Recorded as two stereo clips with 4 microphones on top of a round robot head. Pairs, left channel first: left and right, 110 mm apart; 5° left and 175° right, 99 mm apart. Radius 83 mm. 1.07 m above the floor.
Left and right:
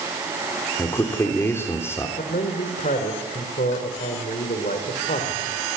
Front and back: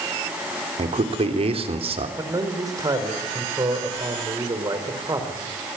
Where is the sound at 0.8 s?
165° left, 3.5 m.